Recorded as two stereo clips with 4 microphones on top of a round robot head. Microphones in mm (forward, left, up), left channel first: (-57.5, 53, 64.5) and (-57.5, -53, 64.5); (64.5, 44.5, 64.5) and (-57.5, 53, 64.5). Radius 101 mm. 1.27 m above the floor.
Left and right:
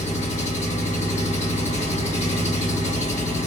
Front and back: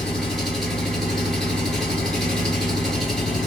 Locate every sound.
0.0 s an engine running: 85° left, 2.5 m